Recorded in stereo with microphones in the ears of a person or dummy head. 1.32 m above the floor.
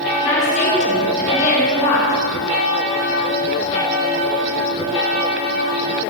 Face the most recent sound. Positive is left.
turn(degrees=45)  # may be behind; listen again after turning